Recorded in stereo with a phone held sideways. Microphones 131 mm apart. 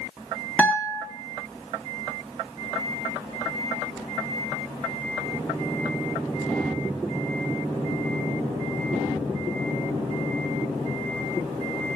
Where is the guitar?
10° left (ahead or behind), 0.8 m.